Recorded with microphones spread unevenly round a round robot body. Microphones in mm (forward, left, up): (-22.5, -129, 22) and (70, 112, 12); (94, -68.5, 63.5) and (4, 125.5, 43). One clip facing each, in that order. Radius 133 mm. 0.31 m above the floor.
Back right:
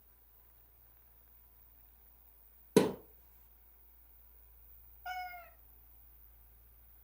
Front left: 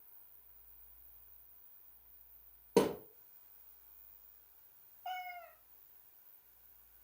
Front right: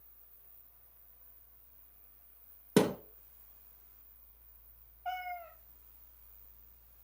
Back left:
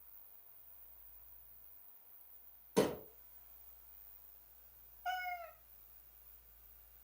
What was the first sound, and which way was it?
A thud, 50° right.